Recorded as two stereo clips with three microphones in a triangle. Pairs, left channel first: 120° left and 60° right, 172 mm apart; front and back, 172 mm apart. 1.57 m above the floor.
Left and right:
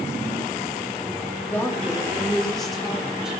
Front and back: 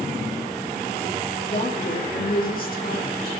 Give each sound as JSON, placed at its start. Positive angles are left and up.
{"t": 1.5, "sound": "a woman speaking", "azimuth_deg": 40, "distance_m": 3.5}